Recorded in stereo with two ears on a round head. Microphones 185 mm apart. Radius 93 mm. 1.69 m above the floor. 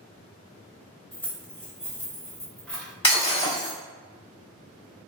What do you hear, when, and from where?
1.1 s keys jangling: 10° left (ahead or behind), 0.6 m; by 2.9 s 5° left (ahead or behind), 1.0 m
3.0 s breaking glass: 25° left (ahead or behind), 1.6 m